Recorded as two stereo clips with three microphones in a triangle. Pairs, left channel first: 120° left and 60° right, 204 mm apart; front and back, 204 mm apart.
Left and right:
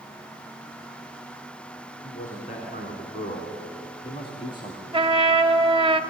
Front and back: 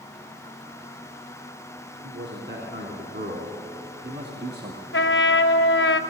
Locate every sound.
2.0 s a man speaking: 170° left, 3.5 m; by 4.8 s 175° right, 1.8 m
4.9 s a trumpet: 5° left, 1.0 m